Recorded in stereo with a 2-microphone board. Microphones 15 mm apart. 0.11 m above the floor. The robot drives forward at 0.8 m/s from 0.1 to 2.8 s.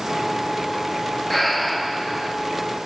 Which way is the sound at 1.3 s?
10° left (ahead or behind).